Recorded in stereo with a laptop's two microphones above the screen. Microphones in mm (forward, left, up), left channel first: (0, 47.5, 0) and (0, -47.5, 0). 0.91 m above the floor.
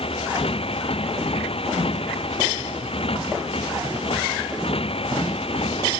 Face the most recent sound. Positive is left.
turn(degrees=80)